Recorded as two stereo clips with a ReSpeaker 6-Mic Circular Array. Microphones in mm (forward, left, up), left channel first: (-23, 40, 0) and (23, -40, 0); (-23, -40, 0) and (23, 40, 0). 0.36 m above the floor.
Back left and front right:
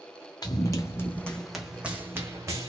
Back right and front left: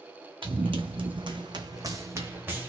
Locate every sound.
0.4 s running footsteps: 75° left, 1.0 m; by 2.7 s 10° right, 1.2 m